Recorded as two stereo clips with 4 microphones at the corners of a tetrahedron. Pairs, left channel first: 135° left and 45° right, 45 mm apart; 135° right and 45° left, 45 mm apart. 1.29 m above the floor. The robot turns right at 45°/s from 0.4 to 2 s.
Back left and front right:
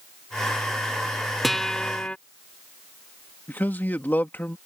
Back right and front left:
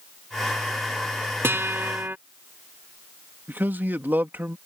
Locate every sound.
1.4 s a guitar: 50° left; by 2.2 s 75° left
3.5 s a man speaking: 90° left